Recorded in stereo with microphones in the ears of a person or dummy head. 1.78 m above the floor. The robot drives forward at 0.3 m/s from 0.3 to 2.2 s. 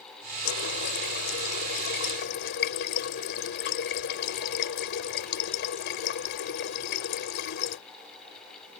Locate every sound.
0.5 s a running tap: 65° left (ahead or behind); by 7.8 s 60° left (ahead or behind)